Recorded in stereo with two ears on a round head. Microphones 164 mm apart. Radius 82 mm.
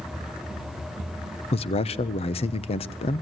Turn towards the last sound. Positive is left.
turn(degrees=35)  # may be behind; listen again after turning